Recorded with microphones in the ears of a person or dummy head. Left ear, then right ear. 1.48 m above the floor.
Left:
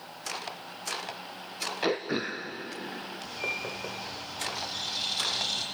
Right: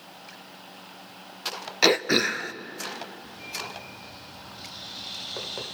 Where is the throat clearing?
65° right (ahead or behind), 0.5 m.